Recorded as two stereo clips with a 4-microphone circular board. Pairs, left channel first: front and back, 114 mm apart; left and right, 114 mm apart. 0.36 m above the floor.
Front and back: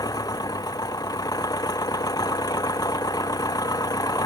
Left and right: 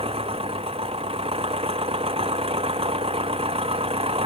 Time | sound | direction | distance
0.0 | an engine running | 55° right | ?